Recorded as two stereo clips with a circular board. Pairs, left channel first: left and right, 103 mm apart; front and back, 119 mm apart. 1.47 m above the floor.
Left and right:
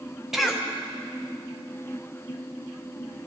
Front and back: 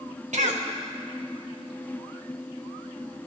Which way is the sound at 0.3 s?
175° right.